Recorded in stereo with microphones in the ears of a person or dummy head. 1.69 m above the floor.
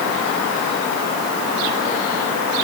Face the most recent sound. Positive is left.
No sound to turn to.